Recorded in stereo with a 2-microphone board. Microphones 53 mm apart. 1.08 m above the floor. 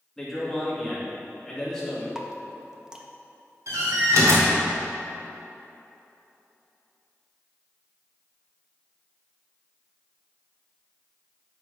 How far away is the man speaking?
About 2.0 m.